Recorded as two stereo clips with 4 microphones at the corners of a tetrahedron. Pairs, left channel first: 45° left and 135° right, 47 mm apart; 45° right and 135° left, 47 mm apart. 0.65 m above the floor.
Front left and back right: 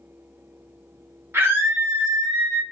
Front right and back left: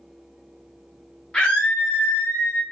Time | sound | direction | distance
1.3 | a scream | 120° right | 0.9 m